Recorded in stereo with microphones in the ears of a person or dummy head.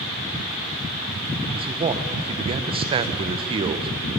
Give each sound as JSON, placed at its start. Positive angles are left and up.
{"t": 1.5, "sound": "a man speaking", "side_deg": -30, "distance_m": 0.8}